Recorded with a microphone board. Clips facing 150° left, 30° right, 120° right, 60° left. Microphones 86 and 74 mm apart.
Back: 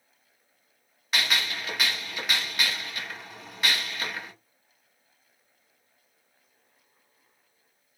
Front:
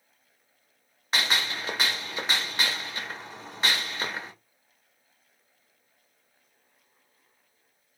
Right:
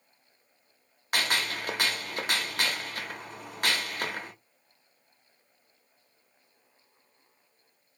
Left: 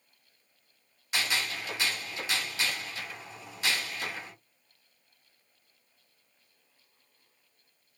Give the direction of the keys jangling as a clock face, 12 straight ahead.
I don't hear keys jangling.